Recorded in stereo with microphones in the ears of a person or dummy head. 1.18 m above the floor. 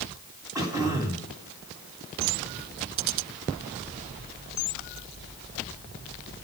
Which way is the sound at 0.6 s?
20° right (ahead or behind).